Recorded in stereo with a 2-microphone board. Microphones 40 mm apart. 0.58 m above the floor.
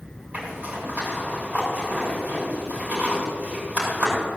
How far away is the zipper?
About 6 m.